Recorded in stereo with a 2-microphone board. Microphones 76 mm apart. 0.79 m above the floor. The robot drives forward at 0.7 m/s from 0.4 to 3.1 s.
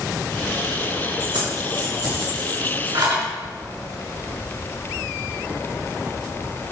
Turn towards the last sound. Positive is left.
turn(degrees=-80)